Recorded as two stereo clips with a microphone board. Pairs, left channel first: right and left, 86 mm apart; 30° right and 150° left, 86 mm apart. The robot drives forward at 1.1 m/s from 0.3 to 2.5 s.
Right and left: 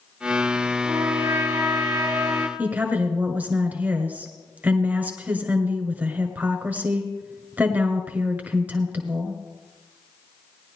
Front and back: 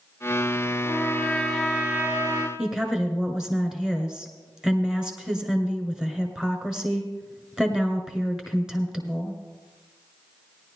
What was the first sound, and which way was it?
A trumpet, 25° left.